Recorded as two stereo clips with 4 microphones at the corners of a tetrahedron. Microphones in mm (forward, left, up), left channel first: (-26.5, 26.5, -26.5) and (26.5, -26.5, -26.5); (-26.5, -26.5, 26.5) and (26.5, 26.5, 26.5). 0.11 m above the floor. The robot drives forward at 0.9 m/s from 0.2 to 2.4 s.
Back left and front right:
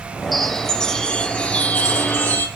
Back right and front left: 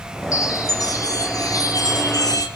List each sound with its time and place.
0.3 s a chime: 130° right, 1.9 m; by 2.5 s 160° right, 3.5 m